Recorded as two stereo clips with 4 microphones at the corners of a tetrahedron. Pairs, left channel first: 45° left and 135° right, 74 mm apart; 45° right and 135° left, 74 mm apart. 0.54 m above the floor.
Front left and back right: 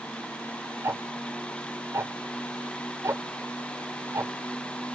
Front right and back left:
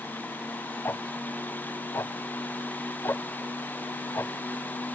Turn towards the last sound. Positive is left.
turn(degrees=-95)